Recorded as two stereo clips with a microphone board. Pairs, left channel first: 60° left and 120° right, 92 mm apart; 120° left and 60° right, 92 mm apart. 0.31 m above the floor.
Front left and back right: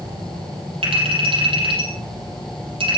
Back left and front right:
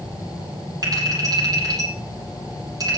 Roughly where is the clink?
Right.